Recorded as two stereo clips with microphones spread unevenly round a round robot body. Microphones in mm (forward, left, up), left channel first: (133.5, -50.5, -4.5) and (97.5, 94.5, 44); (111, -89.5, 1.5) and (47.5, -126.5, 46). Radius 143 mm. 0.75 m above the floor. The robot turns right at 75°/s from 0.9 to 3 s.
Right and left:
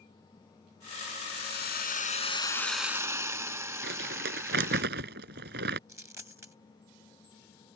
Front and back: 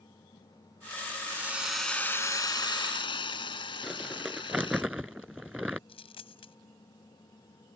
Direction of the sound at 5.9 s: 35° left.